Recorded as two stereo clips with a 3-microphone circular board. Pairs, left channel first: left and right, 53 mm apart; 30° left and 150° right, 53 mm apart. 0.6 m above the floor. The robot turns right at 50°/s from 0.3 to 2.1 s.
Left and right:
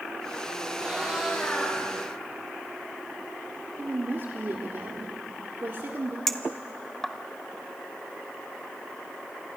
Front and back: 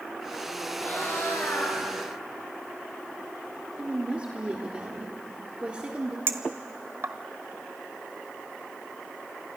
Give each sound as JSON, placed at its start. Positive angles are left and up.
{"t": 0.8, "sound": "a cat meowing", "azimuth_deg": -30, "distance_m": 8.5}
{"t": 3.8, "sound": "a woman speaking", "azimuth_deg": -90, "distance_m": 1.6}
{"t": 6.3, "sound": "a clink", "azimuth_deg": 175, "distance_m": 1.2}